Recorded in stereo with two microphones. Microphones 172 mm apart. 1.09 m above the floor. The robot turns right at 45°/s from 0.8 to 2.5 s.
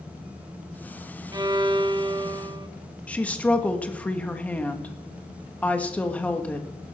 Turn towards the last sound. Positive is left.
turn(degrees=10)  # may be behind; listen again after turning